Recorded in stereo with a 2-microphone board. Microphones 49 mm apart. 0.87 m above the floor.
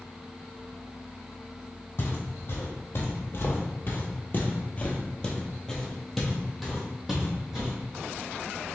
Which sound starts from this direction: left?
Footsteps, at 2.0 s.